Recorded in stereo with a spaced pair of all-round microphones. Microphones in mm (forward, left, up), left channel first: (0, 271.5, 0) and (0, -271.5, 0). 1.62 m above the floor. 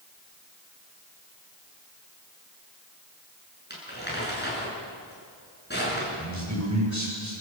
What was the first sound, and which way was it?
Crumpling, 20° left (ahead or behind).